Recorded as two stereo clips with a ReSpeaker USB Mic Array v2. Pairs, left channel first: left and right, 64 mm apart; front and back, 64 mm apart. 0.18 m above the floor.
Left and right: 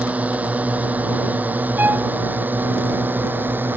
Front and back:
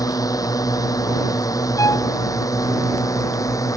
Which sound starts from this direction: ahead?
A drone, at 0.0 s.